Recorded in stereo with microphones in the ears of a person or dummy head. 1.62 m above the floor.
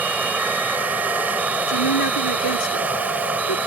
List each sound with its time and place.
0.0 s running water: 10° right (ahead or behind)
1.7 s a woman speaking: 75° left (ahead or behind)